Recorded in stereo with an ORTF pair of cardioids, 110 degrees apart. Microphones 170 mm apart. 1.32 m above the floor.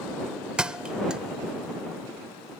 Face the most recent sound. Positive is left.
turn(degrees=-5)